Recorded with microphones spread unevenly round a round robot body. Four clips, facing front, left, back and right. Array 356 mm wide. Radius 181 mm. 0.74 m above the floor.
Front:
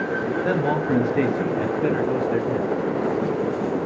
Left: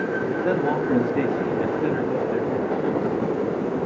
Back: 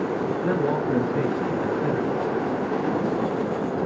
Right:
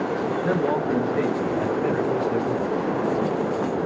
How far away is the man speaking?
About 1.3 m.